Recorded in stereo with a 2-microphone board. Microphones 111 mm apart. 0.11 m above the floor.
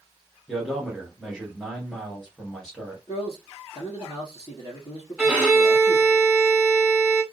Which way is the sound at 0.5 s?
Centre (ahead or behind).